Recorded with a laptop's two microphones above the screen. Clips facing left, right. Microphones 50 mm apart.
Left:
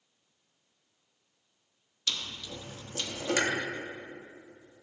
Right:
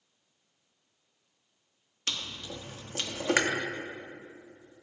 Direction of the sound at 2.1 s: 40° right (ahead or behind).